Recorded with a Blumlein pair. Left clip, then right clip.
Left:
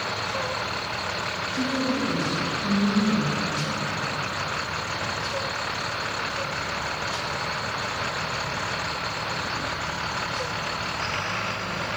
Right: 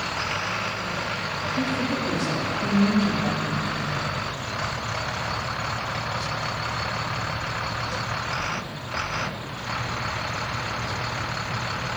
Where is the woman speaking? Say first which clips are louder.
Left 1 dB; 10° right, 2.5 m; by 4.0 s 70° right, 3 m.